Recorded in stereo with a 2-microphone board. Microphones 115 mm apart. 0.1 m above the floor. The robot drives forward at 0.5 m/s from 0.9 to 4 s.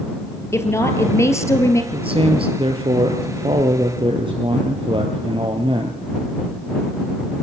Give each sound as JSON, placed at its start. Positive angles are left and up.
{"t": 0.5, "sound": "a woman speaking", "side_deg": 25, "distance_m": 2.5}
{"t": 1.9, "sound": "a man speaking", "side_deg": -55, "distance_m": 1.8}